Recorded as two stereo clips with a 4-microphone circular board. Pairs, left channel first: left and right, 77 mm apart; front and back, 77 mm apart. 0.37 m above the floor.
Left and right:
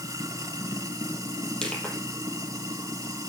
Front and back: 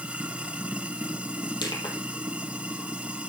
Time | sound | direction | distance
0.0 | running water | 110° right | 1.7 m
1.6 | crushing | 10° left | 3.5 m